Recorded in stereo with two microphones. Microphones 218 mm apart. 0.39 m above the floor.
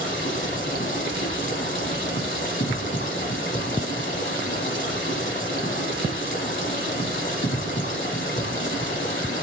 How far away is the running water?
About 0.7 m.